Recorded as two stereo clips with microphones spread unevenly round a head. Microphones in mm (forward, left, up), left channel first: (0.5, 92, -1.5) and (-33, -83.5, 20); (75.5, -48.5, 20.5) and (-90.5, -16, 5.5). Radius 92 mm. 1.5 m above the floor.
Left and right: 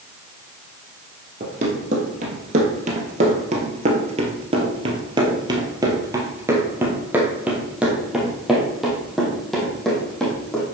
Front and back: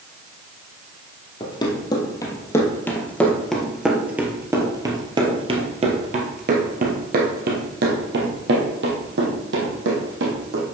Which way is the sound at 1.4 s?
65° right.